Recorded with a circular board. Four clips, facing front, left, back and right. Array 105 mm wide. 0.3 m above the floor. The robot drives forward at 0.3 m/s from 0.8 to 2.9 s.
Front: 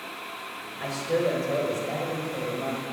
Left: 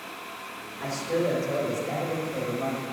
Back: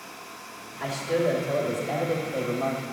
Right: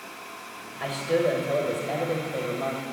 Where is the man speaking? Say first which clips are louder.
Right 3 dB, back 1 dB; 70° right, 1.1 m; by 2.8 s 145° right, 1.2 m.